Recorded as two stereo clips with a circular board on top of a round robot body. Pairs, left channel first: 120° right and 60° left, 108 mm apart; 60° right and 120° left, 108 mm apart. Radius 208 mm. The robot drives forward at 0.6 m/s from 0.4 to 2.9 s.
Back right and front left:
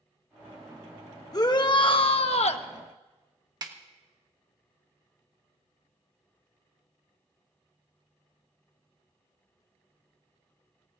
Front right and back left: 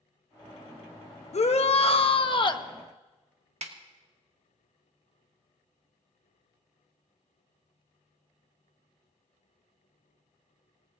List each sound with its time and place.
1.3 s a shout: 65° right, 1.2 m; by 2.7 s 110° right, 1.2 m
3.6 s a snare drum: 115° left, 1.4 m